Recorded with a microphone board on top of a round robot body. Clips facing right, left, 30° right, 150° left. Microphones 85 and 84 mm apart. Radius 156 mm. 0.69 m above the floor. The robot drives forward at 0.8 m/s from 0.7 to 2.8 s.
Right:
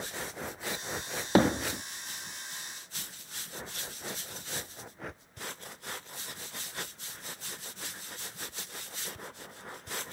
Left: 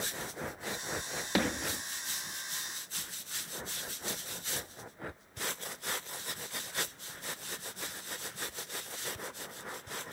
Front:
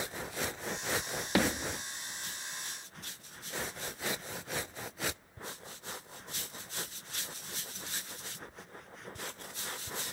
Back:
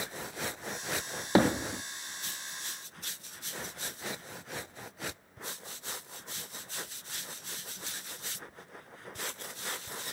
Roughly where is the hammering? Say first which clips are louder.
Right 8 dB, back 5 dB; behind right.